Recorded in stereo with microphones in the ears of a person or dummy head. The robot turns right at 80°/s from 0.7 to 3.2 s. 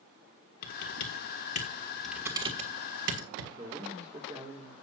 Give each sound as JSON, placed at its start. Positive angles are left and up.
{"t": 0.6, "sound": "typing on a keyboard", "side_deg": 55, "distance_m": 1.5}
{"t": 3.6, "sound": "a man speaking", "side_deg": -25, "distance_m": 1.8}